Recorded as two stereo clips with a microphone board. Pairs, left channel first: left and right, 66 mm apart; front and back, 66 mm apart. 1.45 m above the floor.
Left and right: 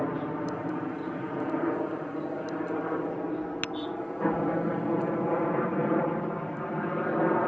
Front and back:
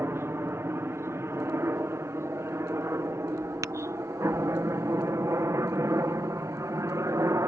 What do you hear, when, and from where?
0.0 s a helicopter: straight behind; by 7.5 s 175° left
3.6 s tapping: 150° left